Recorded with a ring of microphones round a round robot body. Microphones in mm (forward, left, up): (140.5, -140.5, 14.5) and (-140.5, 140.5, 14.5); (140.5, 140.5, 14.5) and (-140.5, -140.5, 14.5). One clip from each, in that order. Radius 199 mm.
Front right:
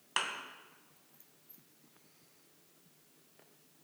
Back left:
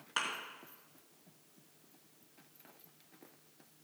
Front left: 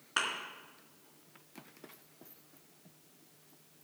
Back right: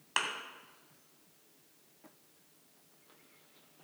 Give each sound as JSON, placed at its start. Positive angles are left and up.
{"t": 0.2, "sound": "a thud", "azimuth_deg": -110, "distance_m": 2.5}